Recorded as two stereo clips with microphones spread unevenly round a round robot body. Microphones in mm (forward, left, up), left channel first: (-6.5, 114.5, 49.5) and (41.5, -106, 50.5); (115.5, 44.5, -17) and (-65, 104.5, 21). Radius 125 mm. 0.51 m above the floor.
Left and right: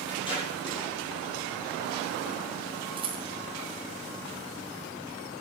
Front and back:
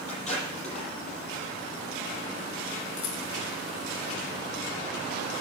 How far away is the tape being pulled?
About 7.5 m.